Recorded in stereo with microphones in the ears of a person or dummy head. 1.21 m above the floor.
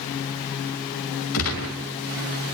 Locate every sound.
1.3 s a gunshot: 70° left (ahead or behind), 2.5 m